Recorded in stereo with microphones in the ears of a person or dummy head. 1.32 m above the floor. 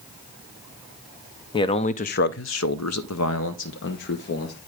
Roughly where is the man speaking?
Left.